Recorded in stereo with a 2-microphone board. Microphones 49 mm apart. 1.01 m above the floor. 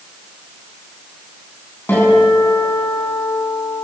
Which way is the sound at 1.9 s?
45° left (ahead or behind).